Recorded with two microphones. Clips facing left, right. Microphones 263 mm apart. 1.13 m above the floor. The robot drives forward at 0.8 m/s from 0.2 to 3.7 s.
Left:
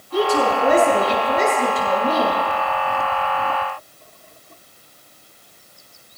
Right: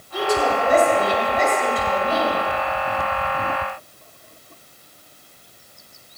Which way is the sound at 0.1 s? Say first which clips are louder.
Left 3 dB; 80° left.